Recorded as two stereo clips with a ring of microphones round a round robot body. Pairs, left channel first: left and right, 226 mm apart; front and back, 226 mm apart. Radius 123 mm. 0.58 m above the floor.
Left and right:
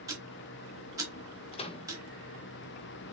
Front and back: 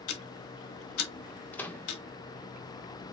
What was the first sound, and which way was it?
Ticking, 15° right.